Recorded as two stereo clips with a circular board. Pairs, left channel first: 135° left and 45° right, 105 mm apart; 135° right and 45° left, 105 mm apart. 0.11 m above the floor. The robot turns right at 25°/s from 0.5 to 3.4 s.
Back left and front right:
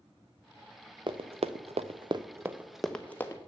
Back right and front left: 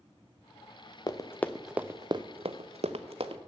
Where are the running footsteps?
85° right, 0.7 m; by 3.4 s 70° left, 1.1 m.